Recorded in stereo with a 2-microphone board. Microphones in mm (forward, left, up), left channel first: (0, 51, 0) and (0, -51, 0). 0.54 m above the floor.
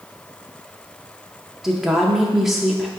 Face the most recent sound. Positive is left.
turn(degrees=-5)  # may be behind; listen again after turning